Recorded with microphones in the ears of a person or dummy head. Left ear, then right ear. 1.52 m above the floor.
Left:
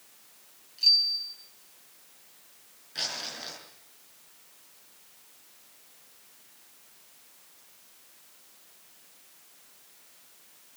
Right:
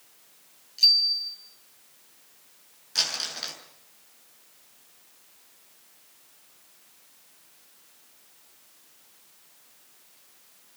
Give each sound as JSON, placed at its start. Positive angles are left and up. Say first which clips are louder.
{"t": 0.8, "sound": "a bicycle bell", "louder": "right 3 dB", "side_deg": -30, "distance_m": 7.5}
{"t": 3.0, "sound": "crumpling", "louder": "right 6 dB", "side_deg": -35, "distance_m": 6.0}